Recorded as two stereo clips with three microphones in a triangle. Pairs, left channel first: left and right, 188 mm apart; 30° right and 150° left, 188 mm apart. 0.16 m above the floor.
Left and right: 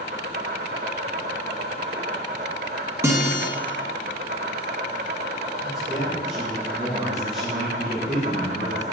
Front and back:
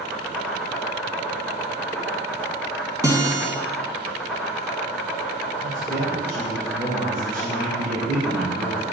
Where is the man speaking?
175° right, 3 m.